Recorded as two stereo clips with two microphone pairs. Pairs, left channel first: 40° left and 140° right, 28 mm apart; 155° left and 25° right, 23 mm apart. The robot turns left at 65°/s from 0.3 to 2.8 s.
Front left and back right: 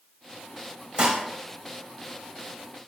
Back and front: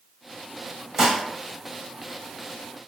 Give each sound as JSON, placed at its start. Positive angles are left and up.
{"t": 1.0, "sound": "dishes clattering", "azimuth_deg": -90, "distance_m": 0.9}